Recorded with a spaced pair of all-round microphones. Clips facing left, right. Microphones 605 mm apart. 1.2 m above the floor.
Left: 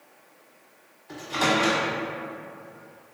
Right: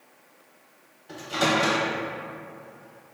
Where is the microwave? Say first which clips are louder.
Even; 55° right (ahead or behind), 0.8 m.